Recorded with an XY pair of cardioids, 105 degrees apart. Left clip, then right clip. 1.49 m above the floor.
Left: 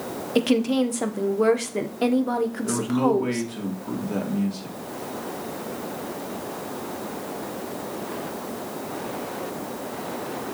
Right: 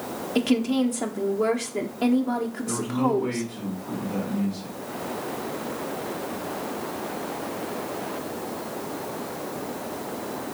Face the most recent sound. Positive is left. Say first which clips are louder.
# left 1 dB
turn(degrees=60)